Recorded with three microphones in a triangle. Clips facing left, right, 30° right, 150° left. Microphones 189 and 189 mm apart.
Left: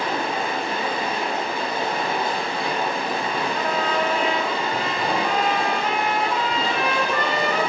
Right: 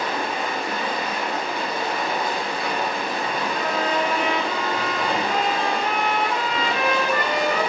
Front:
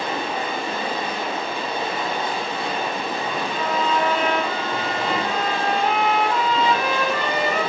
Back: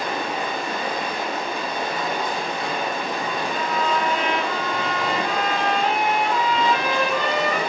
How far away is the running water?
About 1.3 m.